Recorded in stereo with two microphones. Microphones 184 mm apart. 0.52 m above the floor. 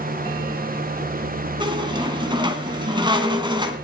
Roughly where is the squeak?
Right.